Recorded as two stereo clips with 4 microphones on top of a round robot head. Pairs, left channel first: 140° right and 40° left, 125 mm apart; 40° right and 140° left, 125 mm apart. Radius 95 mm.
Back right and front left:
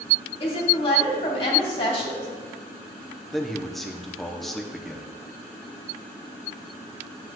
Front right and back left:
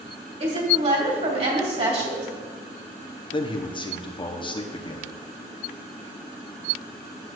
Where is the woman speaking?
175° left, 3 m.